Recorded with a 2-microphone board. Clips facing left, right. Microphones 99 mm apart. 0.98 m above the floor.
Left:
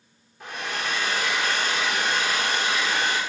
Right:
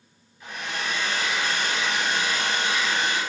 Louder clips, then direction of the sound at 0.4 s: Left 1 dB; 75° left (ahead or behind).